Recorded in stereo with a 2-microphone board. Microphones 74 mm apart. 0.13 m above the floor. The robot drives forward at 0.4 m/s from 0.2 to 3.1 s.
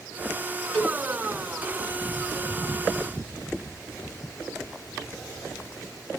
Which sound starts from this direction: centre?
A cowbell, at 0.7 s.